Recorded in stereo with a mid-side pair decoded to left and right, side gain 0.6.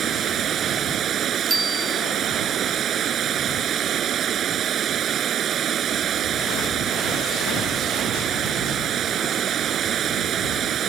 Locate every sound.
0.0 s running water: 45° right
1.5 s a bicycle bell: 20° right